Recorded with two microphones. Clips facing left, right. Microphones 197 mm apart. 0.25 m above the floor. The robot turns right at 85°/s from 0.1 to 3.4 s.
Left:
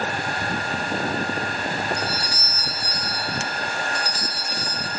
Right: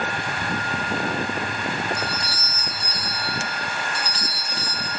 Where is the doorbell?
5° right, 2.5 m; by 4.9 s 115° left, 2.5 m.